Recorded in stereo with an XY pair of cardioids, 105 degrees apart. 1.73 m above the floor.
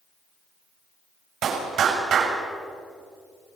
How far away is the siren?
No siren in this recording.